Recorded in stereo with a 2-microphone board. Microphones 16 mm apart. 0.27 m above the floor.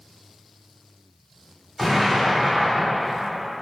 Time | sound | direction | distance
1.8 | an explosion | 5° left (ahead or behind) | 1.4 m